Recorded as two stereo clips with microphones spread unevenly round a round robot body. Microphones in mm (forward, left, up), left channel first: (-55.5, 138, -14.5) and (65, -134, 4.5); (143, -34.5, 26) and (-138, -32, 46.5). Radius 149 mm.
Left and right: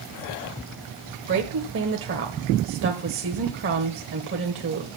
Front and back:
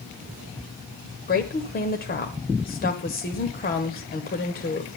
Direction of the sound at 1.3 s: 35° right.